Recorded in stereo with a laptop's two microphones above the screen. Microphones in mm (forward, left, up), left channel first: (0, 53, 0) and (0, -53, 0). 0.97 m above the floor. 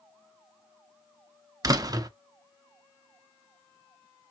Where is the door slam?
35° right (ahead or behind), 0.7 m.